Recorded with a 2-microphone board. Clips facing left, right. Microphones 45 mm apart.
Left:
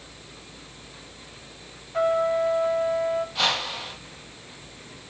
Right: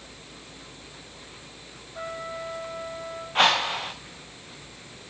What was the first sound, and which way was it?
A trumpet, 65° left (ahead or behind).